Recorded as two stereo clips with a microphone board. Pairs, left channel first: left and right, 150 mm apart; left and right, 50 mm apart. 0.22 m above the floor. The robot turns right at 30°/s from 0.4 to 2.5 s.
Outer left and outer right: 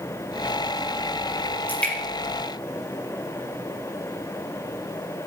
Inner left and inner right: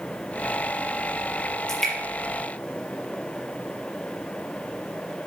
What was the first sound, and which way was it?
Dripping, 10° left (ahead or behind).